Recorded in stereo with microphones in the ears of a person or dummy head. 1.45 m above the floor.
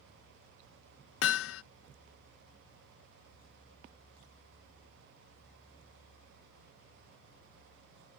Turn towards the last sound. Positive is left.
turn(degrees=75)  # may be behind; listen again after turning